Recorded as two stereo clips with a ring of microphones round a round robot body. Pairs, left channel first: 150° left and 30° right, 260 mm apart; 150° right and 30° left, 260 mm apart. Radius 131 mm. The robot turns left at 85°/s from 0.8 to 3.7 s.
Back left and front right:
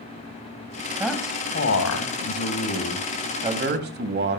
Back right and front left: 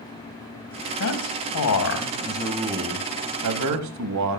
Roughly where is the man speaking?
Right.